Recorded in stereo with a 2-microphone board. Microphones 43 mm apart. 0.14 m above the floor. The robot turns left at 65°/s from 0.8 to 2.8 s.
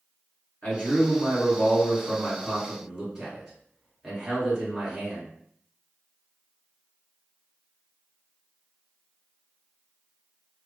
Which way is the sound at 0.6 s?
115° left.